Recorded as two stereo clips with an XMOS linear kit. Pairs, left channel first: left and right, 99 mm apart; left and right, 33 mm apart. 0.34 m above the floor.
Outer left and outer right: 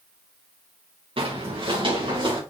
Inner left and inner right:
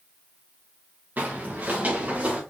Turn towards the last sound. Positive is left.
turn(degrees=-50)  # may be behind; listen again after turning